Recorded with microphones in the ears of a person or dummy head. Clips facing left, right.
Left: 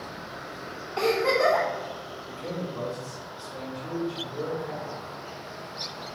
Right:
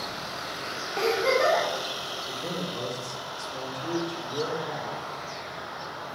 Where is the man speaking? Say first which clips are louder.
Left 1 dB; 50° right (ahead or behind), 1.5 m.